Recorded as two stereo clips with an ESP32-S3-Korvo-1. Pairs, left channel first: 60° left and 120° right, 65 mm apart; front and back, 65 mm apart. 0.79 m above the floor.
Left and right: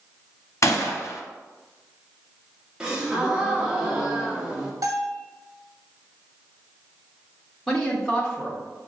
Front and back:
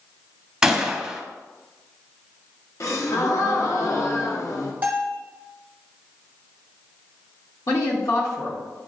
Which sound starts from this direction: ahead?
A woman speaking, at 7.7 s.